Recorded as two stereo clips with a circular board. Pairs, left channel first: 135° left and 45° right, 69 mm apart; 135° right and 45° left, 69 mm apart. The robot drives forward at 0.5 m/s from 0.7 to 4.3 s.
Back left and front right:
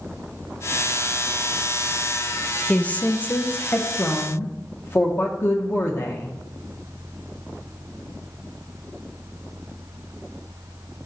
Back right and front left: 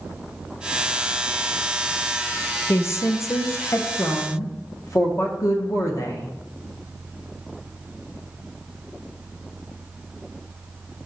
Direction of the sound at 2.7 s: 165° right.